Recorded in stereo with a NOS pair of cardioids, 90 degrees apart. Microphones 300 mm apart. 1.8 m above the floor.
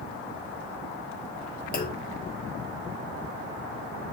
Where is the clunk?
30° left, 1.3 m.